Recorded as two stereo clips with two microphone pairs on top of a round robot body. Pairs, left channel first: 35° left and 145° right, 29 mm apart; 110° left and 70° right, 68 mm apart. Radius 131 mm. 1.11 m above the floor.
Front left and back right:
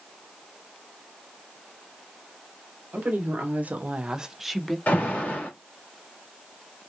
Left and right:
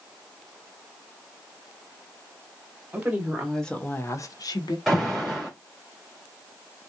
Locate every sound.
2.9 s a woman speaking: 140° right, 1.4 m; by 4.8 s 115° left, 1.0 m
4.9 s an alarm: 15° left, 2 m